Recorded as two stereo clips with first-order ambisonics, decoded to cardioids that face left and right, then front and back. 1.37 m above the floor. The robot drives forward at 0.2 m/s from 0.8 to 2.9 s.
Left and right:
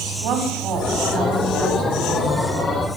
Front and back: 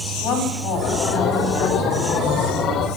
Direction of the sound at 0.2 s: 50° right.